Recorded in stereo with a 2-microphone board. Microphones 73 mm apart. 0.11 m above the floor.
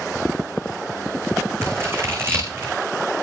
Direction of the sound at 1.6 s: 35° right (ahead or behind).